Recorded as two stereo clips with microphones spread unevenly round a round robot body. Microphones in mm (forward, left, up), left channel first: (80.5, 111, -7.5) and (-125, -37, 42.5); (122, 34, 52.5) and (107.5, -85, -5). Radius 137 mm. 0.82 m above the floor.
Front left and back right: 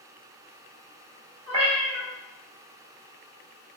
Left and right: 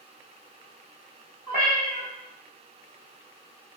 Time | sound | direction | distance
1.5 | a cat meowing | 140° right | 1.6 m